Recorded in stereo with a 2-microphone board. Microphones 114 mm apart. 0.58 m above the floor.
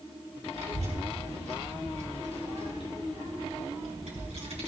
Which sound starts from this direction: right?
A child speaking, at 0.5 s.